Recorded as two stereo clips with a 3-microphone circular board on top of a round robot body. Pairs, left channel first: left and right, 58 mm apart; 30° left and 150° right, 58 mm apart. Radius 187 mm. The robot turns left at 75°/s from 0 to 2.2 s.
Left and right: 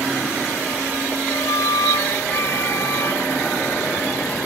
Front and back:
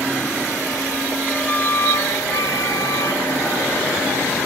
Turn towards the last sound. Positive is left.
turn(degrees=45)